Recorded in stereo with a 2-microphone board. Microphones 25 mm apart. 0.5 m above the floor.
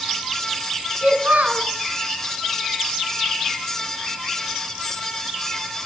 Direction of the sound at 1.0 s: 75° right (ahead or behind).